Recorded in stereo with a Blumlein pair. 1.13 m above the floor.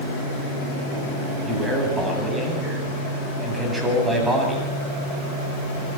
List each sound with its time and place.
1.4 s a man speaking: 10° right, 9 m